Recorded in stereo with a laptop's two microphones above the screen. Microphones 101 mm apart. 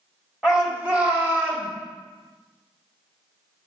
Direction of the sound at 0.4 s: 5° right (ahead or behind).